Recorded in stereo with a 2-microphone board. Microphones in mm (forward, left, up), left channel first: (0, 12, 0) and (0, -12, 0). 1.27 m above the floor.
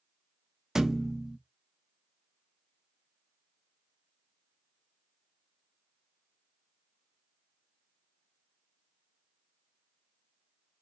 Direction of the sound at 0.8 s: 20° right (ahead or behind).